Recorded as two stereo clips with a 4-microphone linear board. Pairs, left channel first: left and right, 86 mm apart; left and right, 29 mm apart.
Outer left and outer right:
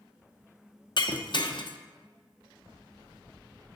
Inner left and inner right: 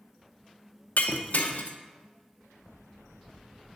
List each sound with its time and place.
1.0 s breaking glass: 65° left (ahead or behind), 0.6 m